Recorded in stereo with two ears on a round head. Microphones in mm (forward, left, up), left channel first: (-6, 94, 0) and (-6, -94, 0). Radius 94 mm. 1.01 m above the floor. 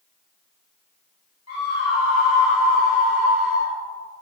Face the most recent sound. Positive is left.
turn(degrees=55)  # may be behind; listen again after turning